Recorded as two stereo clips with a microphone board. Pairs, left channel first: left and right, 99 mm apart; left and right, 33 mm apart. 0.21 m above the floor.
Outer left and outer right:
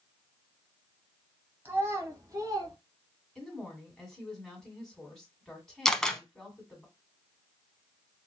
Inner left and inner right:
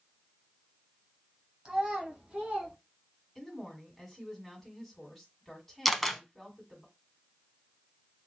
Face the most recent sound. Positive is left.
turn(degrees=5)  # may be behind; listen again after turning